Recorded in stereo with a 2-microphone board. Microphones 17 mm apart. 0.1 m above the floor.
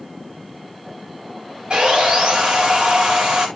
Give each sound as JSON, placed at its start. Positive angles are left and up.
{"t": 1.7, "sound": "sawing", "side_deg": -65, "distance_m": 9.0}